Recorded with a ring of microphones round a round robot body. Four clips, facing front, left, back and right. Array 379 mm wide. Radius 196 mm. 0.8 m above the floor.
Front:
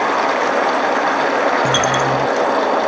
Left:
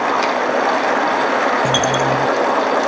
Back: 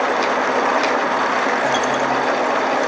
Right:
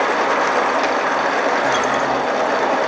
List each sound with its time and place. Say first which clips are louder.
1.6 s a dropped coin: left 1 dB, front 2 dB; 45° left